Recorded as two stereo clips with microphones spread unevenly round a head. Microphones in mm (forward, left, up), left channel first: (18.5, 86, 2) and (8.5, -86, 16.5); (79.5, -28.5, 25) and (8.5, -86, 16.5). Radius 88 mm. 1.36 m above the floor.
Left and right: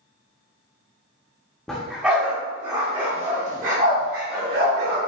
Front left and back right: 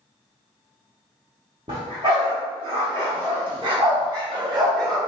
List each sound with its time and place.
1.7 s a dog barking: 175° left, 1.2 m; by 5.0 s 100° right, 1.9 m